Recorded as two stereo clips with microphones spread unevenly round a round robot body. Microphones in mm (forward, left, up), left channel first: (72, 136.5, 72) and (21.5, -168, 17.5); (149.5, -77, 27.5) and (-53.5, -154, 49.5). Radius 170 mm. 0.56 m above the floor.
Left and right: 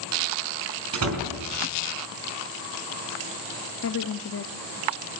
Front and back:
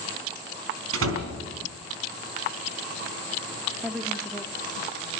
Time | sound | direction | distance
0.9 | a door slam | 145° right | 4 m
3.8 | a woman speaking | 105° left | 0.7 m